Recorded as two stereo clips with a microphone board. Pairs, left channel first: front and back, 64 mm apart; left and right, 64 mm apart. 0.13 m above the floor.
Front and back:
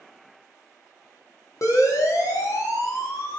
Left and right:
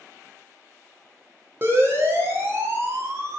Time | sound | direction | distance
1.6 | a siren | 35° right | 9 m